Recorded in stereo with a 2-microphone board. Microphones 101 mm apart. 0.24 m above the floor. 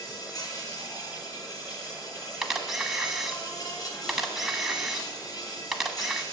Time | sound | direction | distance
0.0 | an insect | 40° left (ahead or behind) | 2 m
2.4 | a camera shutter | 5° right (ahead or behind) | 1.1 m